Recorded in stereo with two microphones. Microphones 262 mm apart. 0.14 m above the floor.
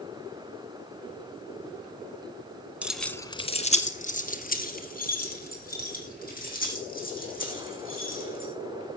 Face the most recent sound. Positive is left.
turn(degrees=35)  # may be behind; listen again after turning